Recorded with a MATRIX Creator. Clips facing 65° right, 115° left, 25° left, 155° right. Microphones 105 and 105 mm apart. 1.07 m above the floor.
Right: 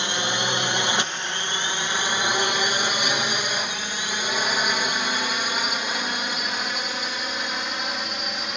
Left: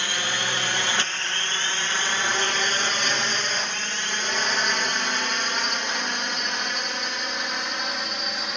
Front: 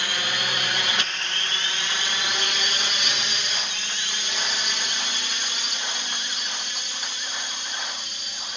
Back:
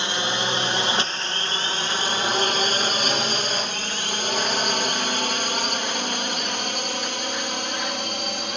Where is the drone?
120° right; by 8.6 s 160° right.